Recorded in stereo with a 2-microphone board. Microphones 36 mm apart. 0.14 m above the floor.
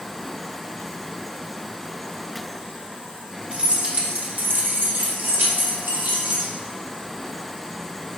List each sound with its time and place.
3.5 s keys jangling: 30° right (ahead or behind), 1.2 m; by 6.5 s 70° right (ahead or behind), 3 m